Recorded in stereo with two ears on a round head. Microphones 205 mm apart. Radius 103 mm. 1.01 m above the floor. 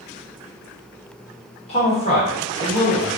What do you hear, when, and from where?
1.7 s a man speaking: 25° left (ahead or behind), 1.1 m